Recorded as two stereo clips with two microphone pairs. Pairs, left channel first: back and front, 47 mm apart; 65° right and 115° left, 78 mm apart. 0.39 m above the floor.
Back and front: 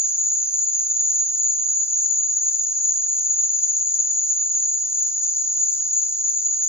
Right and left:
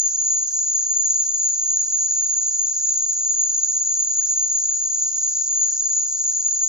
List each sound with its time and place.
0.0 s an insect: 165° right, 0.9 m